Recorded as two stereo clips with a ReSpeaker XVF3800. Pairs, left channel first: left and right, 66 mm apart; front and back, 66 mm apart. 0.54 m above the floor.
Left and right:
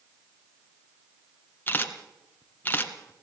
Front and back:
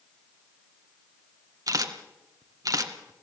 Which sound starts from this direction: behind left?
A camera shutter, at 1.7 s.